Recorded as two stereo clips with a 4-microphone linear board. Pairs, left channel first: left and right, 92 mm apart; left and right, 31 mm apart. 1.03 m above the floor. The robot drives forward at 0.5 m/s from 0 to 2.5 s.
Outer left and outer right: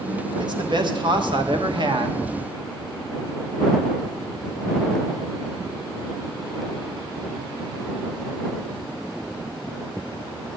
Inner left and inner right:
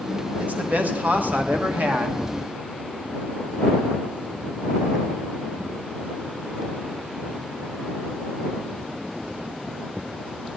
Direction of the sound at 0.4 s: 50° right (ahead or behind).